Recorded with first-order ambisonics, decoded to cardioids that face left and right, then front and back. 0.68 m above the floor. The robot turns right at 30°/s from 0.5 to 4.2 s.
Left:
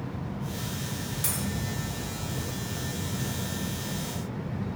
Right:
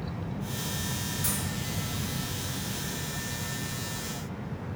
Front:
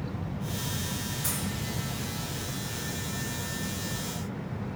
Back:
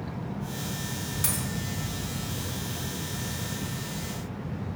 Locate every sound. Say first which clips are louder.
1.2 s a dropped coin: left 2 dB, back 4 dB; 160° left, 0.6 m; by 1.4 s 165° left, 0.6 m